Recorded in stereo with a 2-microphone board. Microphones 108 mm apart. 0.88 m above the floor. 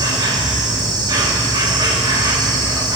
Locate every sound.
0.0 s an insect: 40° right (ahead or behind), 1.3 m